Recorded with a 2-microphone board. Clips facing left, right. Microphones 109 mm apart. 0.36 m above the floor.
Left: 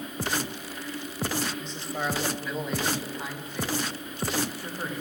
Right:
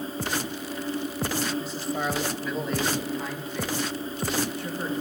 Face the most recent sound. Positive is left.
turn(degrees=10)  # may be behind; listen again after turning